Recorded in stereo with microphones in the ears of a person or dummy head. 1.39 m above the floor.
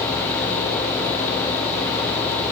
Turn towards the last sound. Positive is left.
No sound to turn to.